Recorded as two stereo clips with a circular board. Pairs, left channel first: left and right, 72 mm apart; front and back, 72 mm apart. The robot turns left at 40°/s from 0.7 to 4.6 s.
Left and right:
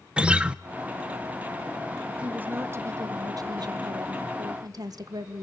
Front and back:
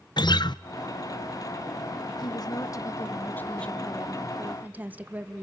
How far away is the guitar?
About 0.6 m.